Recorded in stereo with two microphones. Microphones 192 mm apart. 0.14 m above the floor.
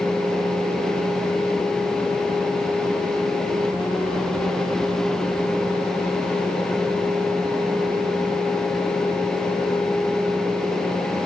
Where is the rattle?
No rattle in this recording.